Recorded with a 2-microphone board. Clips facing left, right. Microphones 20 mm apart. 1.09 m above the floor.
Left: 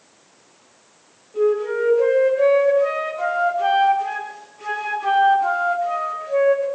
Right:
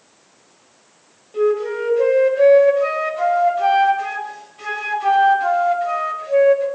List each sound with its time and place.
1.3 s a flute: 85° right, 6.5 m